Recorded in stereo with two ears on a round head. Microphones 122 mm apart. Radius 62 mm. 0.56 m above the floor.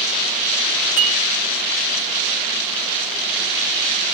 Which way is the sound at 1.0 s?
15° right (ahead or behind).